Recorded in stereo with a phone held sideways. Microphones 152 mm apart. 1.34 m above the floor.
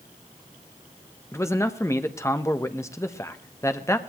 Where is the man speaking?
20° left (ahead or behind), 1.3 m.